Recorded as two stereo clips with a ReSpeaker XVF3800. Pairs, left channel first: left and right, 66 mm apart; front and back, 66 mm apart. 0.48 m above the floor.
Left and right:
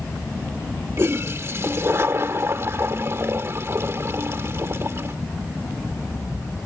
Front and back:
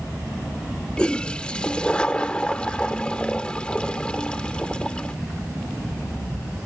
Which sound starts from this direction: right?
A toilet flushing, at 1.0 s.